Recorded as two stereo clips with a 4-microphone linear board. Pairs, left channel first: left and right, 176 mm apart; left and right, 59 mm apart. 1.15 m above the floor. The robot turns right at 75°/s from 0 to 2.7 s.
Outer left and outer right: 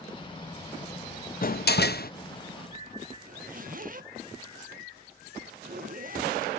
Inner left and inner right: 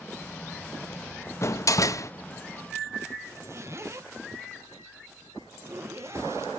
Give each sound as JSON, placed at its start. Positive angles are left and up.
{"t": 1.4, "sound": "a door slam", "azimuth_deg": 60, "distance_m": 0.6}
{"t": 3.3, "sound": "a zipper", "side_deg": -50, "distance_m": 1.1}